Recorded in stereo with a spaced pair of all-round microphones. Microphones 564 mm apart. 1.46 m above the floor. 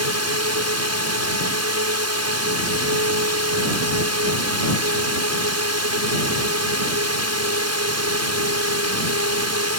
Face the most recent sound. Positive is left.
turn(degrees=-25)  # may be behind; listen again after turning